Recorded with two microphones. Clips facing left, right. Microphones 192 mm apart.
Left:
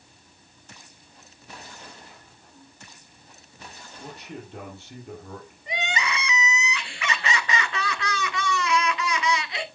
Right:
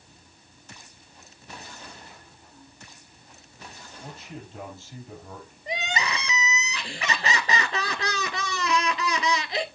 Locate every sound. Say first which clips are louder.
4.0 s a man speaking: left 2 dB; 60° left (ahead or behind), 5.5 m
5.7 s crying: even; 35° right (ahead or behind), 0.6 m